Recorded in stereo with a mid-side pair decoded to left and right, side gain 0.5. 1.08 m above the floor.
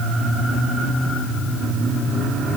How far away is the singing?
No singing in this recording.